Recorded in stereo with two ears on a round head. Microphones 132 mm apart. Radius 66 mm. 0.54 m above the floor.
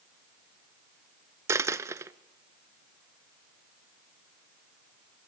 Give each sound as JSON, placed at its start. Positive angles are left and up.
{"t": 1.5, "sound": "a dropped coin", "side_deg": -20, "distance_m": 0.7}